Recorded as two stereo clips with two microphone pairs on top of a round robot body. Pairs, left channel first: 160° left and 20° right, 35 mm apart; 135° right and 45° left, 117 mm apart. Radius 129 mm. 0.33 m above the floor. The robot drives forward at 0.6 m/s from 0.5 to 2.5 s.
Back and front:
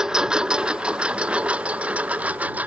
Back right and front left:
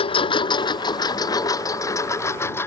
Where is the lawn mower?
90° right; by 2.7 s 60° right.